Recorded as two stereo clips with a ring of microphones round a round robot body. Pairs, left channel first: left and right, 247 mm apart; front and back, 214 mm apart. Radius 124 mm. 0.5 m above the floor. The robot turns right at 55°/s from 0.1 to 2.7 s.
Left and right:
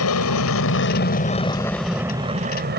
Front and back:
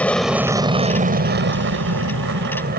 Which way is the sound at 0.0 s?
85° left.